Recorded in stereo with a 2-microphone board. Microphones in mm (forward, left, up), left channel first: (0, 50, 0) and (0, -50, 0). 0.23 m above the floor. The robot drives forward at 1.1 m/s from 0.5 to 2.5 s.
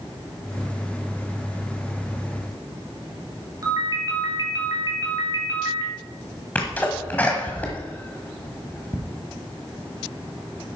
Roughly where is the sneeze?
Centre.